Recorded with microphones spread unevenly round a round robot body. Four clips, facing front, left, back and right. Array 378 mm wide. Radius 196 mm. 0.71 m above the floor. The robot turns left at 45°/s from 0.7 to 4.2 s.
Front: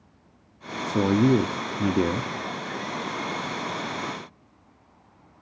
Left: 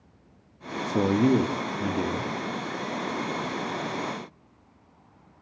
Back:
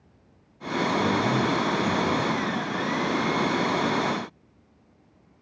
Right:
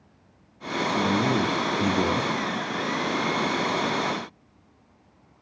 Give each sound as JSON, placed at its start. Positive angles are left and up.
{"t": 0.8, "sound": "a man speaking", "azimuth_deg": 30, "distance_m": 1.1}